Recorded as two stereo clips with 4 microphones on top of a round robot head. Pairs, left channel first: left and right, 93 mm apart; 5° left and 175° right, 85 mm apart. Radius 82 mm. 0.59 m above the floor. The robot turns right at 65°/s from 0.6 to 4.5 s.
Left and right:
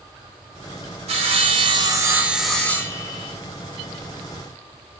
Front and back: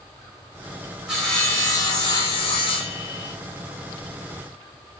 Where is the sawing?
90° right, 1.3 m; by 3.4 s 55° left, 1.3 m.